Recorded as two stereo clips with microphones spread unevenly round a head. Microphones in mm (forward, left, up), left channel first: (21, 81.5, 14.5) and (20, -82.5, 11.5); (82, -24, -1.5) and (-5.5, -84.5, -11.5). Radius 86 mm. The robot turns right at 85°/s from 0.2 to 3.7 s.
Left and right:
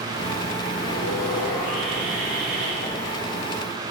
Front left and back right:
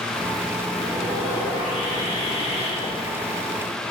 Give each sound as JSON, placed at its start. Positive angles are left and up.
{"t": 0.8, "sound": "sawing", "azimuth_deg": 95, "distance_m": 1.6}
{"t": 2.8, "sound": "a whoosh", "azimuth_deg": 65, "distance_m": 0.9}